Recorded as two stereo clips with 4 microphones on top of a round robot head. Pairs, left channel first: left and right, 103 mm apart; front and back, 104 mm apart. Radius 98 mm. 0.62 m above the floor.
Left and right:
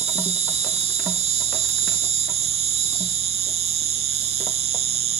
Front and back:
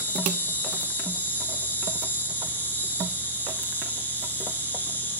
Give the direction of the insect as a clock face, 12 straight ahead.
3 o'clock.